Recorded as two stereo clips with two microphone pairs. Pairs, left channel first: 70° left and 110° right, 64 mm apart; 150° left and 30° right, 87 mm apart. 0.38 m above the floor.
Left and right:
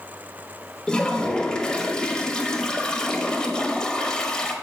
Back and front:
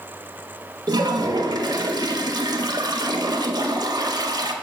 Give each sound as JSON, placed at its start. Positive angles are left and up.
{"t": 0.9, "sound": "a toilet flushing", "azimuth_deg": -5, "distance_m": 0.7}